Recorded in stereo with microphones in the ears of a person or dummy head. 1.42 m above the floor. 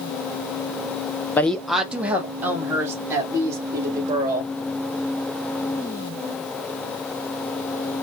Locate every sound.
1.4 s a woman speaking: 15° left (ahead or behind), 0.5 m; by 4.5 s 15° right (ahead or behind), 2 m